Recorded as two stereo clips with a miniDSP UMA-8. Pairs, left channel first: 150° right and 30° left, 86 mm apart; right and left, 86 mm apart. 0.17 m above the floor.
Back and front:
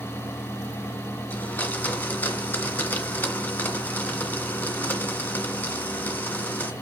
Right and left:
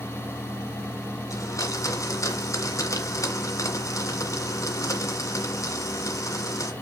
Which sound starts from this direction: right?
A blender, at 1.3 s.